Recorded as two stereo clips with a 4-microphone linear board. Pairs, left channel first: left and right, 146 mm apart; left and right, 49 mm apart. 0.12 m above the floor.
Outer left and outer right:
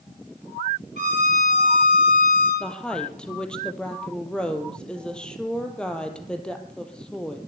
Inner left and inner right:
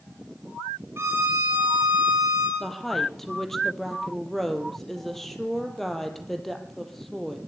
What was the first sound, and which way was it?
A violin, 55° right (ahead or behind).